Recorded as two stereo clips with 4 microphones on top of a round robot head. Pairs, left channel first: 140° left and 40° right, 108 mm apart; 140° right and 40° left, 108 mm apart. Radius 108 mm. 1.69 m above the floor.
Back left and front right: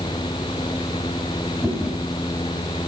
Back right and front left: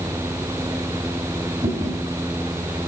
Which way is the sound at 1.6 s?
40° left.